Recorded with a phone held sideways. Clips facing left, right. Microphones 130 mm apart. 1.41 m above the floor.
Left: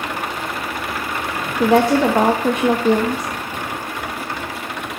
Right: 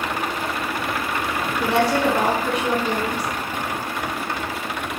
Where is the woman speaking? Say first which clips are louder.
Left 6 dB; 45° left (ahead or behind), 0.6 m.